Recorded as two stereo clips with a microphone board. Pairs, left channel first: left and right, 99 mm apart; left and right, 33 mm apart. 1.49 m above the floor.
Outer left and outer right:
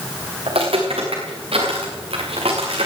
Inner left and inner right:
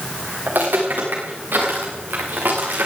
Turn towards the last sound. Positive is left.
turn(degrees=-75)  # may be behind; listen again after turning